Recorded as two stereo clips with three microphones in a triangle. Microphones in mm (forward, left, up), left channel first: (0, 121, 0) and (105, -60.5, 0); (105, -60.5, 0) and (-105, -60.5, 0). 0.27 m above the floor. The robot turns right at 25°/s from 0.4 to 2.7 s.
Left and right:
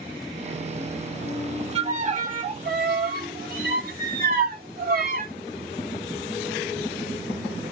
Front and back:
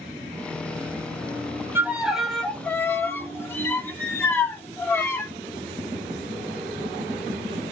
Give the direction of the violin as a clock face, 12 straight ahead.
3 o'clock.